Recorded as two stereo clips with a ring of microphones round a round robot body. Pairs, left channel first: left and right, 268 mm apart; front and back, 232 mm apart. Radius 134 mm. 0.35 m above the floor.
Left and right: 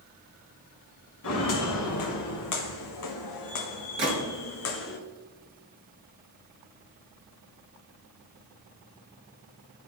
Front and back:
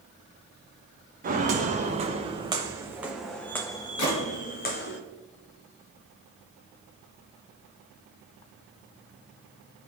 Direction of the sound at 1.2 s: 125° left.